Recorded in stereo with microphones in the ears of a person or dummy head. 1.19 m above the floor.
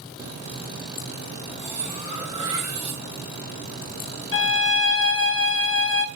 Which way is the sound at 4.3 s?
65° left (ahead or behind).